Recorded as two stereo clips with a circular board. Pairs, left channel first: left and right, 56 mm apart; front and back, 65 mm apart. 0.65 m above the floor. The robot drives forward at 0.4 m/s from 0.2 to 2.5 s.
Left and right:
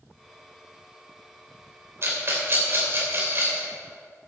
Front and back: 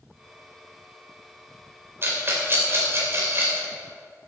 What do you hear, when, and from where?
2.0 s a rattle: 130° right, 2.5 m